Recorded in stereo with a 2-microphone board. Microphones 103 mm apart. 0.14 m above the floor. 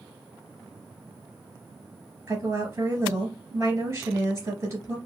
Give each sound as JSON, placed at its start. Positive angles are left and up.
{"t": 2.3, "sound": "a woman speaking", "side_deg": -25, "distance_m": 2.5}